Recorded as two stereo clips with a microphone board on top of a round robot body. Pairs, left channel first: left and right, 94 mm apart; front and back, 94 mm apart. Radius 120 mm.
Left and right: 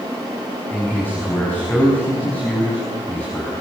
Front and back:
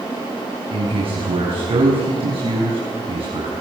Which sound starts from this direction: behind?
A man speaking, at 0.7 s.